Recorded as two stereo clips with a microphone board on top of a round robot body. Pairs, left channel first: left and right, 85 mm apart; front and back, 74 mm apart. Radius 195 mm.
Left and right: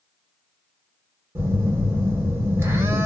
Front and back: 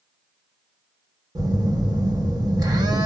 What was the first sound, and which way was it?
A phone buzzing, 145° right.